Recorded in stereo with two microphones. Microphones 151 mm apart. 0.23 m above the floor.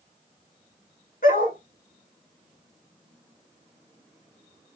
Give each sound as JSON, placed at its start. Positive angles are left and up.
{"t": 1.2, "sound": "a dog barking", "side_deg": 75, "distance_m": 1.6}